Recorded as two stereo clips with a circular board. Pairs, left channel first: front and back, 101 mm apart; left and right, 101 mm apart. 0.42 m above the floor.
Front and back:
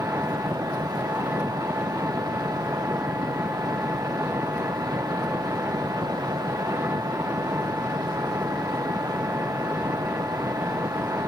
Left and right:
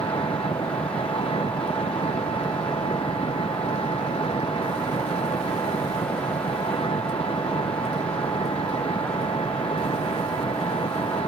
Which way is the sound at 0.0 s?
110° left.